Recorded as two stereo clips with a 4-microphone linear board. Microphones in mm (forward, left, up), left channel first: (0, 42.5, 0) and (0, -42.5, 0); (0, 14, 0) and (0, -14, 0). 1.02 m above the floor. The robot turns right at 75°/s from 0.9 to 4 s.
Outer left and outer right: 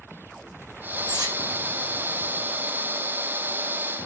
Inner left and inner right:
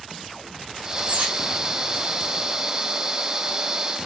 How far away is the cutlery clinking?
About 0.6 m.